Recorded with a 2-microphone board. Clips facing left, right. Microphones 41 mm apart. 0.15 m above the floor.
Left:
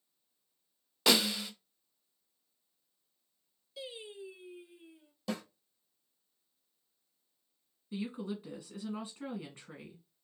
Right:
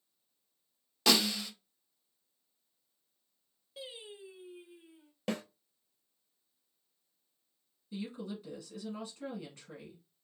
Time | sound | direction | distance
1.1 | a snare drum | 10° left (ahead or behind) | 1.1 m
3.8 | singing | 40° right (ahead or behind) | 2 m
5.3 | a snare drum | 55° right (ahead or behind) | 1.1 m
7.9 | a woman speaking | 25° left (ahead or behind) | 1.2 m